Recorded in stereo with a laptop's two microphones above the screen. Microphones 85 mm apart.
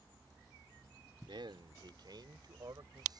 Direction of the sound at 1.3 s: 70° right (ahead or behind).